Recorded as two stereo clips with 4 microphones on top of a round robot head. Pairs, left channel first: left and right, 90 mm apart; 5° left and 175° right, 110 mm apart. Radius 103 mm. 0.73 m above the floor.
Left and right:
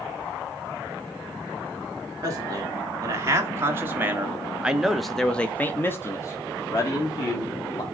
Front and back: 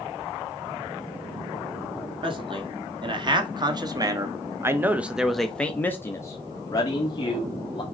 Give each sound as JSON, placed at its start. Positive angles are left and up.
{"t": 2.2, "sound": "a man speaking", "azimuth_deg": -140, "distance_m": 2.0}